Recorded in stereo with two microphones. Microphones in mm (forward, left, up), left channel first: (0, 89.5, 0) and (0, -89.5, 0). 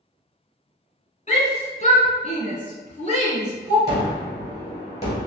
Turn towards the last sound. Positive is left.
turn(degrees=35)  # may be behind; listen again after turning